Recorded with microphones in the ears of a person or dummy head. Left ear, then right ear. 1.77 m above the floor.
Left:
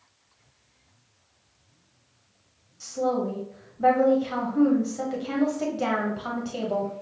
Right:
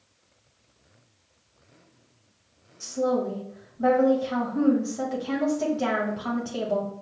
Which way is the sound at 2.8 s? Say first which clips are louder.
Right 1 dB; 5° left (ahead or behind).